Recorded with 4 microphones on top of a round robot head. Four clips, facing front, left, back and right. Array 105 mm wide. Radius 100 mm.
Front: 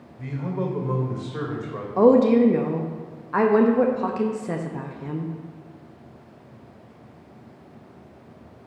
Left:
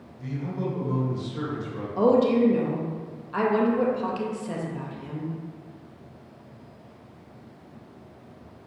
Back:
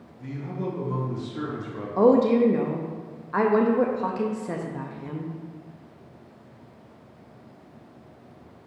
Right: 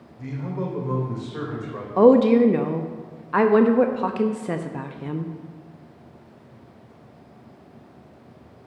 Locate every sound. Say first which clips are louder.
0.2 s a man speaking: right 1 dB, front 4 dB; 25° right, 2.5 m; by 1.9 s 40° right, 2.5 m
2.0 s a woman speaking: right 6 dB, front 3 dB; 85° right, 0.7 m